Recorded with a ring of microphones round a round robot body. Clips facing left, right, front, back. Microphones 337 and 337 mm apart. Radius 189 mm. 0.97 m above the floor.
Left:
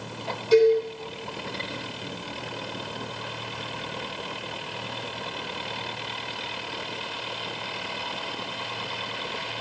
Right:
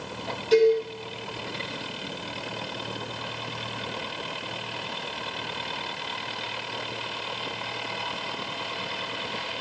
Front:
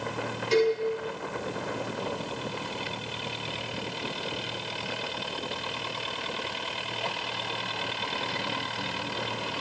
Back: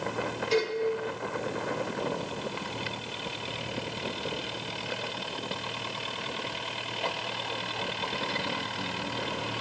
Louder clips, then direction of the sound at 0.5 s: Left 1 dB, front 5 dB; 5° left.